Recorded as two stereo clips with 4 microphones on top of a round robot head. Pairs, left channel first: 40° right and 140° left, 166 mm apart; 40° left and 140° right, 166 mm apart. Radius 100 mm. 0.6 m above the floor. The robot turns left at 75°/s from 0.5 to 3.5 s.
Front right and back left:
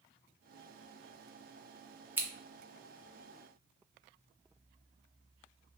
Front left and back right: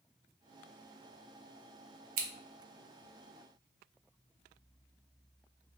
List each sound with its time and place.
2.2 s scissors: 145° right, 0.6 m; by 2.3 s 155° right, 0.6 m